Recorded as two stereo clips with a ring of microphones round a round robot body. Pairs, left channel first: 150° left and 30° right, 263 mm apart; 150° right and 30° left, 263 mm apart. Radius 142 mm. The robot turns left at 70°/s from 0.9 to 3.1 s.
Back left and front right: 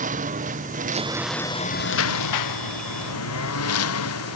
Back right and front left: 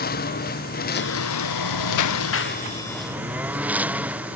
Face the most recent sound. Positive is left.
turn(degrees=115)